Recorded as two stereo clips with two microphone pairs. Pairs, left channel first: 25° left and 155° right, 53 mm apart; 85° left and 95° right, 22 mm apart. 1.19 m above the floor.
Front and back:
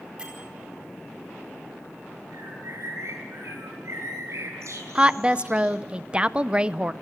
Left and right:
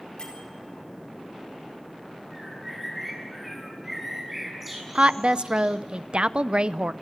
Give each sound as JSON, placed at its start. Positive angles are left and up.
{"t": 0.2, "sound": "a bell", "azimuth_deg": 135, "distance_m": 4.0}
{"t": 2.3, "sound": "a bird", "azimuth_deg": -175, "distance_m": 7.0}
{"t": 5.0, "sound": "a woman speaking", "azimuth_deg": -100, "distance_m": 0.6}